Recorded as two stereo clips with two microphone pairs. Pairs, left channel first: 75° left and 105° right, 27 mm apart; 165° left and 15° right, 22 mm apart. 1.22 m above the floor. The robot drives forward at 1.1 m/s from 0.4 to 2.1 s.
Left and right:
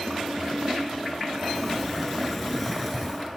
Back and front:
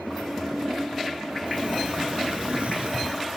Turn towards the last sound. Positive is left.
turn(degrees=-15)